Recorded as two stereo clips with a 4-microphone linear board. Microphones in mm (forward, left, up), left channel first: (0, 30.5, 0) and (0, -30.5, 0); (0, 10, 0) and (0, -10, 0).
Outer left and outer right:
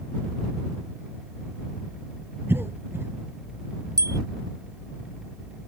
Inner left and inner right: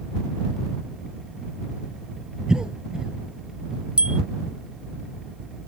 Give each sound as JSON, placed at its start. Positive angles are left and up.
{"t": 2.5, "sound": "a cough", "side_deg": -40}
{"t": 4.0, "sound": "a bicycle bell", "side_deg": -70}